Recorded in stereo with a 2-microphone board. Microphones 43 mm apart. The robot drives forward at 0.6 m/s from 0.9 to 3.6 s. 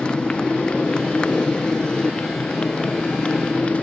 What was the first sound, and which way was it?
A motorcycle, 25° left (ahead or behind).